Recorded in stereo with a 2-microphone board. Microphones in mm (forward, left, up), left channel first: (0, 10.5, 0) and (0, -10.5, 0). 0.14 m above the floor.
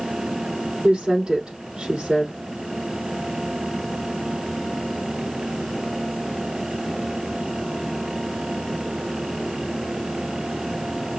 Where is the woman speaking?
50° right (ahead or behind), 4 m.